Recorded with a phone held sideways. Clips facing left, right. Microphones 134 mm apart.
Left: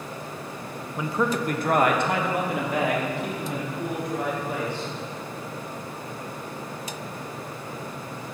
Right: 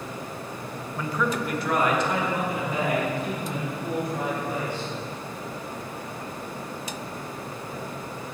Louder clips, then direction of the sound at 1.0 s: Left 2 dB; 10° left (ahead or behind).